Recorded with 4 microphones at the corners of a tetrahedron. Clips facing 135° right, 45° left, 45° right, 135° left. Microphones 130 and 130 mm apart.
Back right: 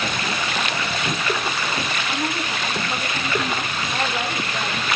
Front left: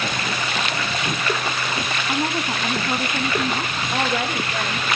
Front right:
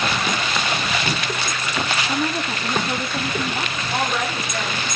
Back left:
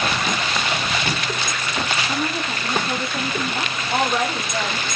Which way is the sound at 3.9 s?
70° left.